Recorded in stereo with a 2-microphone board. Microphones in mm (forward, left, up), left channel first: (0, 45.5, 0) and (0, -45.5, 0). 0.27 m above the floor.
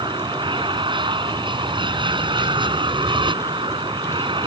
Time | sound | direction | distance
0.0 | an aircraft | 60° right (ahead or behind) | ?